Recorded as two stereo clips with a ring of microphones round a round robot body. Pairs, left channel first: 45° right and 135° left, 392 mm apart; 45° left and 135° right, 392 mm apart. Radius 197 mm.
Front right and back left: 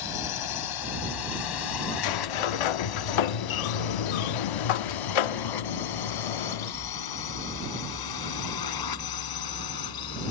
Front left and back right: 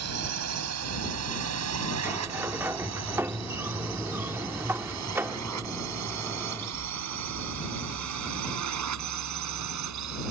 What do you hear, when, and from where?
0.0 s a drone: 80° right; by 10.3 s 85° right
2.0 s a sliding door: 50° right